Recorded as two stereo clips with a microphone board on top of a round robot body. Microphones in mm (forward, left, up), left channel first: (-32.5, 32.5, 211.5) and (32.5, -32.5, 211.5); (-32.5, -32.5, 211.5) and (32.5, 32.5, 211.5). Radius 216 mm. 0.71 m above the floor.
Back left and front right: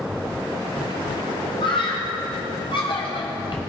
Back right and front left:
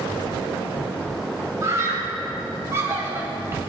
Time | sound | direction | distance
1.6 | a scream | 105° left | 7 m